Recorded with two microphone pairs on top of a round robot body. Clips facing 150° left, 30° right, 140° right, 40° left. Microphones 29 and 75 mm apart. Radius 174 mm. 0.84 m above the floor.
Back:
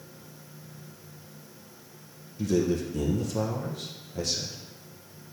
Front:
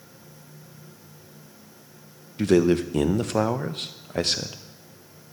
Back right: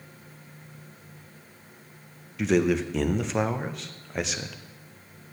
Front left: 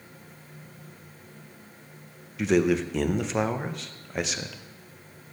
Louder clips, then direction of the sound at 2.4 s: Front 7 dB, even; 45° right.